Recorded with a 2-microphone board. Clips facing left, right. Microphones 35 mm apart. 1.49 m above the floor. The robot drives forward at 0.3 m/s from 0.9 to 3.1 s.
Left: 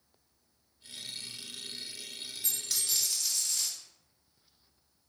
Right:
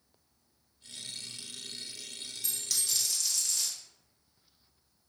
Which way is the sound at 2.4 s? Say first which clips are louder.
Even; 20° left (ahead or behind).